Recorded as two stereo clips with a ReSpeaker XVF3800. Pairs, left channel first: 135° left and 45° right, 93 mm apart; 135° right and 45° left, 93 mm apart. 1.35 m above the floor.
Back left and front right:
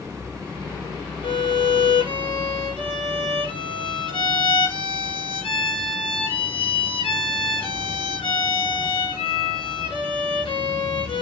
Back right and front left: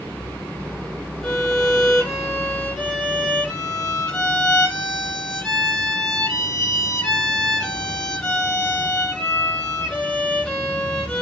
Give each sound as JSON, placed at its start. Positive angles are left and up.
{"t": 1.2, "sound": "a violin", "azimuth_deg": 145, "distance_m": 2.0}